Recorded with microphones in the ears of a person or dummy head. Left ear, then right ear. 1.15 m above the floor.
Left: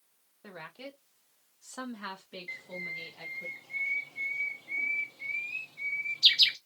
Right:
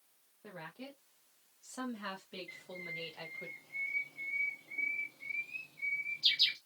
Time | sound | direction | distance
0.4 | a woman speaking | 65° left (ahead or behind) | 1.7 m
2.5 | a bird | 60° left (ahead or behind) | 0.6 m